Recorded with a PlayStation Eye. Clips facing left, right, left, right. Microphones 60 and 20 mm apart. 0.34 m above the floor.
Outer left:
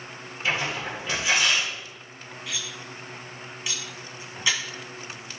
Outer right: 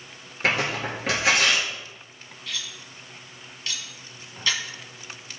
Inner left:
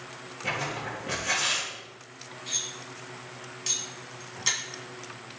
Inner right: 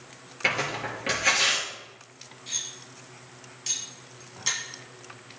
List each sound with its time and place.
0.4 s tearing paper: 70° right (ahead or behind), 3.5 m
2.5 s cutlery clinking: 10° left (ahead or behind), 2.0 m